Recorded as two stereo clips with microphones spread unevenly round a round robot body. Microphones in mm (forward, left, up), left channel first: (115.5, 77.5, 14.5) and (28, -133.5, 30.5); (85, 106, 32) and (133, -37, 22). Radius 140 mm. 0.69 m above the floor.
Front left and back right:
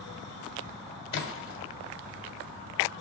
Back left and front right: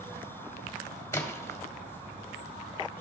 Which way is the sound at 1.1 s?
35° left.